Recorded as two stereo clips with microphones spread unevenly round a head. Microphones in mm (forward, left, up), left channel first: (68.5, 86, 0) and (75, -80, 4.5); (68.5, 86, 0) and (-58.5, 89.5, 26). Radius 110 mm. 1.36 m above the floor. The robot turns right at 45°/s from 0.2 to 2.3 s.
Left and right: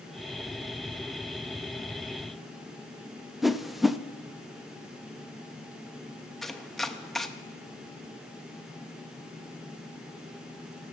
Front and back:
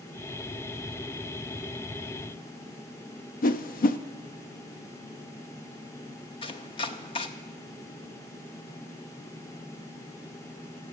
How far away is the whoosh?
About 0.6 m.